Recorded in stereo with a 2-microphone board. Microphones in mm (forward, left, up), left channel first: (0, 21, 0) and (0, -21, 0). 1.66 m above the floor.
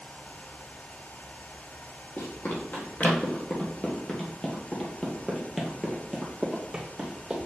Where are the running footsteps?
50° left (ahead or behind), 2.5 m; by 7.4 s 20° right (ahead or behind), 2.5 m.